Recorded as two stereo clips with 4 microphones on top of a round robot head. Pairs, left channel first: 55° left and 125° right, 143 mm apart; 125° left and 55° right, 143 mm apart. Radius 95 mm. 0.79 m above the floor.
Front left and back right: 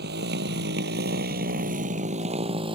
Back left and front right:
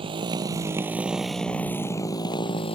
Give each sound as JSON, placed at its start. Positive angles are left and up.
{"t": 0.0, "sound": "a motorcycle", "azimuth_deg": -110}